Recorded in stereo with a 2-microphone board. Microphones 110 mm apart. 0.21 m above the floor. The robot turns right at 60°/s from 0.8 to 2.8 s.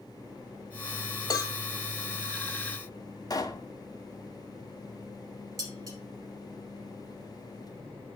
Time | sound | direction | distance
1.3 | a cowbell | 35° left (ahead or behind) | 0.9 m
3.3 | a pop | 35° left (ahead or behind) | 1.0 m
5.6 | dishes clattering | 30° right (ahead or behind) | 4 m